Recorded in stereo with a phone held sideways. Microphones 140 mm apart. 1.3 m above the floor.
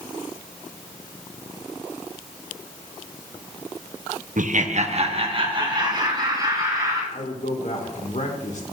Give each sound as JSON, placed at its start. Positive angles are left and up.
{"t": 4.4, "sound": "laughter", "side_deg": -65, "distance_m": 0.7}
{"t": 7.1, "sound": "a man speaking", "side_deg": 60, "distance_m": 1.9}